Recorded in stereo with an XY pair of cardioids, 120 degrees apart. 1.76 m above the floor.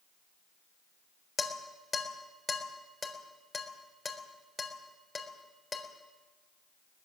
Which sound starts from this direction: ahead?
Dishes clattering, at 1.4 s.